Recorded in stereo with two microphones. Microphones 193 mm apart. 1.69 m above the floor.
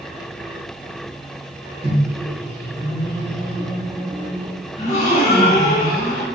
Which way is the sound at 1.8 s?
25° right (ahead or behind).